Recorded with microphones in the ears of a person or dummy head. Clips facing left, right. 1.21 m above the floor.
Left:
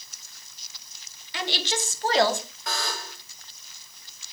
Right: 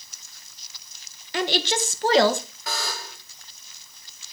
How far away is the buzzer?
About 0.8 m.